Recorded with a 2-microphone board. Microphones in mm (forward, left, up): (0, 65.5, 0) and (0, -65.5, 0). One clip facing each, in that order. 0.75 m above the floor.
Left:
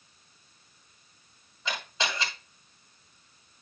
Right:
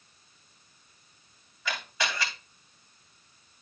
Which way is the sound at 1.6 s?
25° left (ahead or behind).